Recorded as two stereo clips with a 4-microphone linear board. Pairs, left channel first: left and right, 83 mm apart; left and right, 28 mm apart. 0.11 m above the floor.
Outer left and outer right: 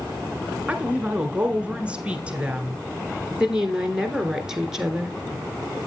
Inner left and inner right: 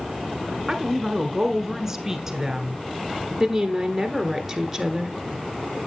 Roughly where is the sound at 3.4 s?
Centre.